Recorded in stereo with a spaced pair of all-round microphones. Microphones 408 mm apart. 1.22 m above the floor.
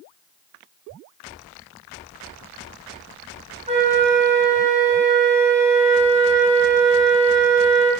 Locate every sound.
3.7 s a flute: 15° right (ahead or behind), 2 m